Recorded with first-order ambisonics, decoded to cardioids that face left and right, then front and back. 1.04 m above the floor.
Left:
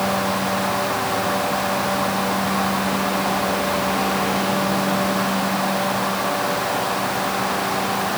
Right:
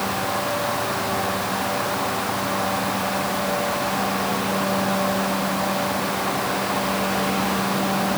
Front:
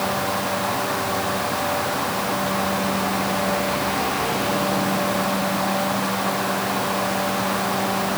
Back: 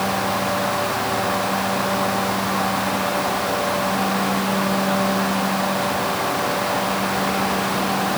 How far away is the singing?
No singing in this recording.